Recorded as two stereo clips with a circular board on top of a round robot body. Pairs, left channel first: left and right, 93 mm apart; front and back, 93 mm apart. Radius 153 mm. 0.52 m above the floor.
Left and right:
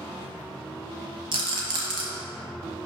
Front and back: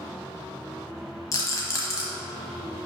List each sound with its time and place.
1.3 s a rattle: 55° right, 0.9 m